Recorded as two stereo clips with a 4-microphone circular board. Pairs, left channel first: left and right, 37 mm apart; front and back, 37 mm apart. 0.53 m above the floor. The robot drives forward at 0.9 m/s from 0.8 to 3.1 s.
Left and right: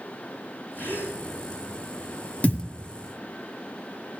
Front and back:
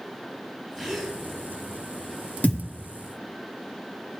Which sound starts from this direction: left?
A gasp, at 0.8 s.